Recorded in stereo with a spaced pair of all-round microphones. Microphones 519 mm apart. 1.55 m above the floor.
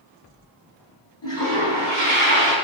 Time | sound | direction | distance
1.2 | a toilet flushing | 55° left (ahead or behind) | 3 m